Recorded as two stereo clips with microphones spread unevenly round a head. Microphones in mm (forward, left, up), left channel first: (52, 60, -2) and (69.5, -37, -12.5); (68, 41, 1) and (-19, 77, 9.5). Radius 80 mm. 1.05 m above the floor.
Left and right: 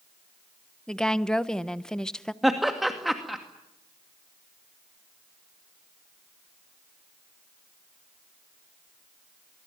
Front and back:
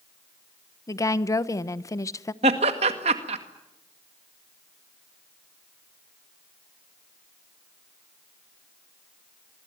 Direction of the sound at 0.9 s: 15° left.